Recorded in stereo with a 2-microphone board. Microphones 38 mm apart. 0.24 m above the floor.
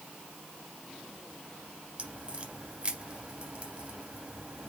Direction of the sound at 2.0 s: 30° right (ahead or behind).